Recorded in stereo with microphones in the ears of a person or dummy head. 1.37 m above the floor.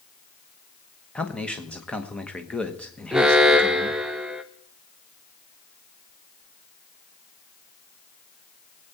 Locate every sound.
1.1 s a man speaking: 5° left (ahead or behind), 1.1 m
3.1 s an alarm: 5° right (ahead or behind), 0.6 m